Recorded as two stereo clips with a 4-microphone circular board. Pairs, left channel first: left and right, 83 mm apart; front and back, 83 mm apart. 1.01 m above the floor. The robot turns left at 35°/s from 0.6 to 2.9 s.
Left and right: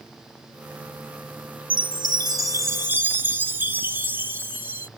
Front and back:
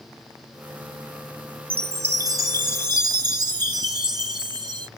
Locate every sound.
1.7 s a chime: 110° right; by 4.9 s 155° right